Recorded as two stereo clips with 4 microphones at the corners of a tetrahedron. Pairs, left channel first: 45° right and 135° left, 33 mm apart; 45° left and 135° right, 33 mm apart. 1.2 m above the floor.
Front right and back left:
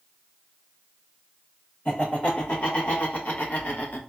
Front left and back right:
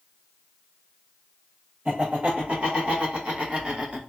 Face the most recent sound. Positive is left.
turn(degrees=-75)